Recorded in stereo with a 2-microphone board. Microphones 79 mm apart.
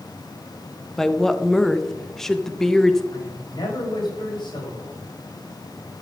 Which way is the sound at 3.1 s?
85° left.